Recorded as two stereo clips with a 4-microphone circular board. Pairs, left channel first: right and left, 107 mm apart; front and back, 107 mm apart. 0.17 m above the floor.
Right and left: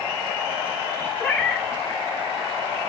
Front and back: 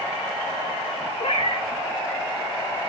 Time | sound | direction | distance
1.2 | a cat meowing | 10° right | 0.6 m